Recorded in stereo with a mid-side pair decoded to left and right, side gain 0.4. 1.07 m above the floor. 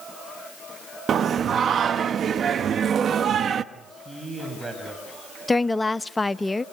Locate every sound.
1.1 s singing: 60° right, 1.0 m
3.7 s a man speaking: 20° right, 7 m
5.5 s a woman speaking: 20° left, 0.8 m